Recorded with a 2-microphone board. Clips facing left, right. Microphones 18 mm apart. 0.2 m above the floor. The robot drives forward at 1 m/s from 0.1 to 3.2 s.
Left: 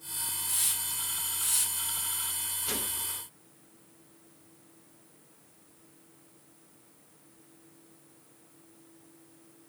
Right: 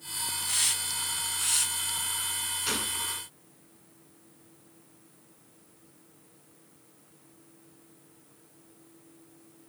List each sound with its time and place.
0.4 s a hiss: 40° right (ahead or behind), 1.0 m; by 2.2 s 20° right (ahead or behind), 2.0 m
2.7 s a gunshot: 55° right (ahead or behind), 2.5 m